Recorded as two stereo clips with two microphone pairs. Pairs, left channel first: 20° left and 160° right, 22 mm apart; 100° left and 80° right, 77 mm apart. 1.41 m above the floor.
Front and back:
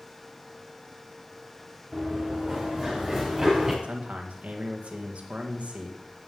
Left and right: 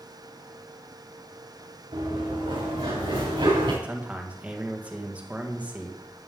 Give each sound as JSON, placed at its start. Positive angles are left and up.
{"t": 1.9, "sound": "running footsteps", "azimuth_deg": -80, "distance_m": 6.0}
{"t": 3.8, "sound": "a man speaking", "azimuth_deg": -150, "distance_m": 1.8}